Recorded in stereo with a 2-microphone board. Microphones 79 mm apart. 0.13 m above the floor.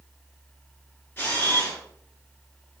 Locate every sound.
1.2 s a camera shutter: 30° left (ahead or behind), 1.2 m